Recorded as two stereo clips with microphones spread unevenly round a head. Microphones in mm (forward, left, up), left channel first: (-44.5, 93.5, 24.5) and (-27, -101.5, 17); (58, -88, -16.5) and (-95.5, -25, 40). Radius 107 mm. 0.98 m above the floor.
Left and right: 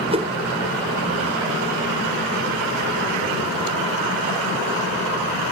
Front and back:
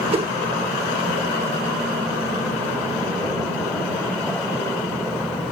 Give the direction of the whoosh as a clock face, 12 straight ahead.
5 o'clock.